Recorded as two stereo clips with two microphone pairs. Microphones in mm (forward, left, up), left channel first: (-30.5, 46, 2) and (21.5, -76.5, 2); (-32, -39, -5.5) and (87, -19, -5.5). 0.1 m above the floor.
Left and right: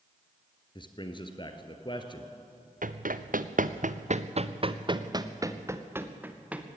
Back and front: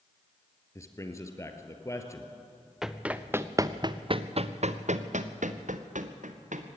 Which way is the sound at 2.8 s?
75° right.